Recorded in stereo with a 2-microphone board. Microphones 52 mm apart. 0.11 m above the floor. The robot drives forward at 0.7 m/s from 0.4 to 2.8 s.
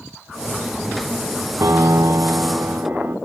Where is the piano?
65° right (ahead or behind), 0.6 m; by 3.1 s 40° right (ahead or behind), 0.9 m.